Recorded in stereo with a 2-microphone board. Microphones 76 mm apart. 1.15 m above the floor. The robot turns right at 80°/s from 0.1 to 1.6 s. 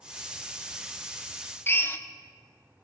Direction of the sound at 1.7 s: 30° left (ahead or behind).